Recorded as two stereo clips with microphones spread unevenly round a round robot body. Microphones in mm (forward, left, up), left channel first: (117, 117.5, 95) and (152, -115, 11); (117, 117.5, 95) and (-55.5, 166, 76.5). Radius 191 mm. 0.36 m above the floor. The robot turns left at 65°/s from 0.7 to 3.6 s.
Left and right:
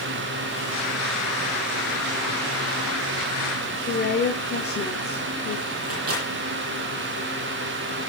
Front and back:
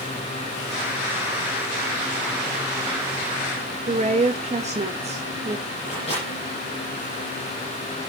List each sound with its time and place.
3.9 s a woman speaking: 155° left, 1.3 m
5.8 s a microwave: 85° right, 8.5 m